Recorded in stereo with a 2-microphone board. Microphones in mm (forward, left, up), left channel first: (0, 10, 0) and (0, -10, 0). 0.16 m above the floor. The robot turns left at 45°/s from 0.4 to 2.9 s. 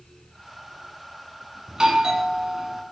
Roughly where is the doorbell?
Right.